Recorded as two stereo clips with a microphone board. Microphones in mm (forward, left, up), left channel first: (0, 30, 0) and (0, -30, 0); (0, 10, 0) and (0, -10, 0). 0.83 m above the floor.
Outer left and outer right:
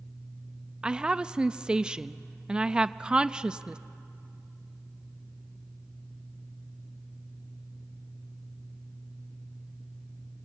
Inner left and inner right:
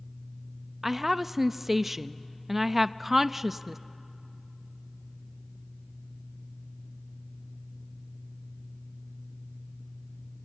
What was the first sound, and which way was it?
A woman speaking, 15° right (ahead or behind).